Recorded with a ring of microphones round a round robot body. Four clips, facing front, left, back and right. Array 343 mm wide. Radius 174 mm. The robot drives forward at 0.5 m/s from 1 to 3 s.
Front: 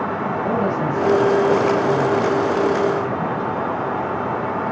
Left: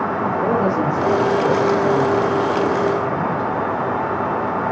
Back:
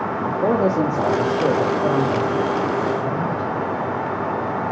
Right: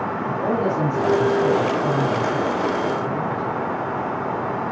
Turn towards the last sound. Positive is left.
turn(degrees=170)